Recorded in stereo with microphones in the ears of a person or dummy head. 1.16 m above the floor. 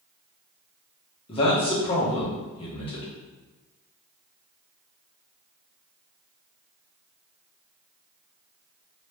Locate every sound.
1.3 s a man speaking: 25° left (ahead or behind), 1.2 m